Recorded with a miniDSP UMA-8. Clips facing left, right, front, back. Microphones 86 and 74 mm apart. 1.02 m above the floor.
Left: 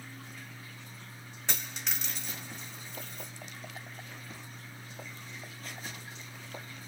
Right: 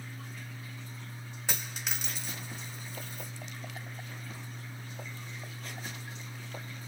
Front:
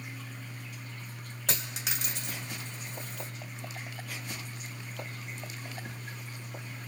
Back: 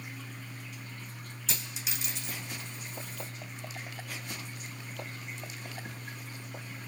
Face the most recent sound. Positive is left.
turn(degrees=-5)